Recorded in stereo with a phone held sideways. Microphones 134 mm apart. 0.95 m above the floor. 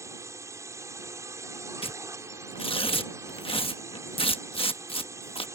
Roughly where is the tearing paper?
Left.